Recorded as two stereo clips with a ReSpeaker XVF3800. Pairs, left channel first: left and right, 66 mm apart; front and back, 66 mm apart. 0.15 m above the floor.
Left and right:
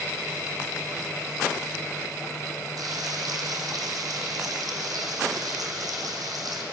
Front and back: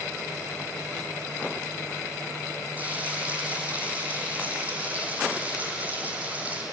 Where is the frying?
115° right, 3.5 m.